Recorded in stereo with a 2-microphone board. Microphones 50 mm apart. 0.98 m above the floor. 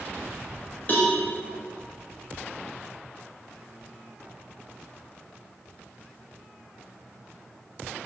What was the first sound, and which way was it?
A cowbell, 40° left (ahead or behind).